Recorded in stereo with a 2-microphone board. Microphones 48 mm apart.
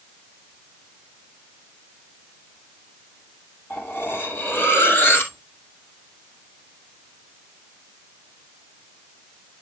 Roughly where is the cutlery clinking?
Left.